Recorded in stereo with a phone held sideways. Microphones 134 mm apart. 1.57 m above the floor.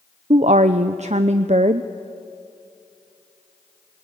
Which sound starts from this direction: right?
A woman speaking, at 0.3 s.